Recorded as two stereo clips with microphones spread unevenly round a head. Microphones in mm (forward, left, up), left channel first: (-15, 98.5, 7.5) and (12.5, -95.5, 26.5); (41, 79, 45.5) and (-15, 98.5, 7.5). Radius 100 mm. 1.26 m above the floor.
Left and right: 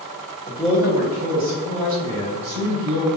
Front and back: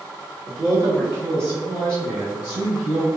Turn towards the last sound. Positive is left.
turn(degrees=-100)